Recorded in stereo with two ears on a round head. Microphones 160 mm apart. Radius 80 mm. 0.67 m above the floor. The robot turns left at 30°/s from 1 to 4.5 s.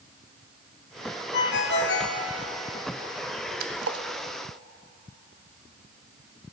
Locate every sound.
1.3 s a ringtone: 65° left (ahead or behind), 0.8 m; by 2.2 s 60° left (ahead or behind), 0.8 m
3.6 s a splash: 55° right (ahead or behind), 0.8 m; by 4.0 s 70° right (ahead or behind), 0.8 m